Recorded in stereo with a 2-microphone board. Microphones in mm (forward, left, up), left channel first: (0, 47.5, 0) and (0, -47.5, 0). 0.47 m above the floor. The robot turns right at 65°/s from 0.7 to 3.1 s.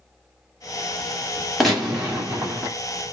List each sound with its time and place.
1.6 s a gunshot: centre (ahead or behind), 1.1 m; by 2.7 s 20° right (ahead or behind), 1.1 m